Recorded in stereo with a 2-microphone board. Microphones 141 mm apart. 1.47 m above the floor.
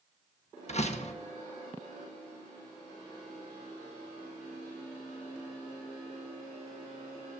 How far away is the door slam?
About 1.2 m.